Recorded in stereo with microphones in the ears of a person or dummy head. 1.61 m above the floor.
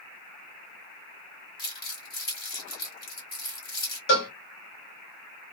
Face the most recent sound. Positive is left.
turn(degrees=55)  # may be behind; listen again after turning